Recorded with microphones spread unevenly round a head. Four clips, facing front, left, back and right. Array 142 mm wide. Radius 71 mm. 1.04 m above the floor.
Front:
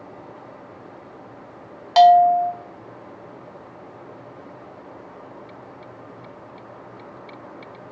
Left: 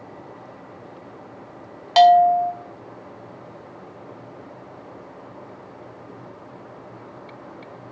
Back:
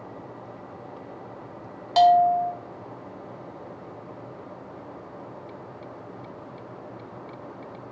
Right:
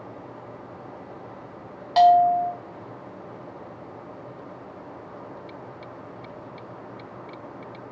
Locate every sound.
2.0 s a bell: 50° left, 0.6 m